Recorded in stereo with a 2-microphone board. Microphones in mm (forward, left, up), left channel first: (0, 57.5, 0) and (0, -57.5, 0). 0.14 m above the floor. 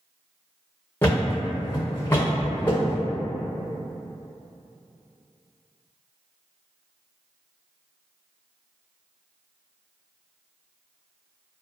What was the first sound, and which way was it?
A thud, 20° left (ahead or behind).